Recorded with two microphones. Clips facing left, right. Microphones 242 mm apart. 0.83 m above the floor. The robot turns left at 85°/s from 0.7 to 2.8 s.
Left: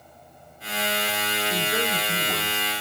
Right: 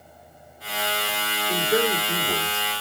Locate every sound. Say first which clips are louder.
1.5 s a man speaking: right 7 dB; 70° right, 2.5 m; by 2.7 s 170° right, 2.5 m